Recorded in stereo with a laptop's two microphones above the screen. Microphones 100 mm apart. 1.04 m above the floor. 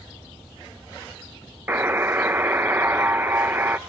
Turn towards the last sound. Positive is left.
turn(degrees=-20)  # may be behind; listen again after turning